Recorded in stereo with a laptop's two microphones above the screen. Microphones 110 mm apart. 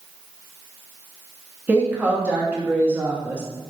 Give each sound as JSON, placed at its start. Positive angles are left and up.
{"t": 1.7, "sound": "a woman speaking", "side_deg": -15, "distance_m": 1.2}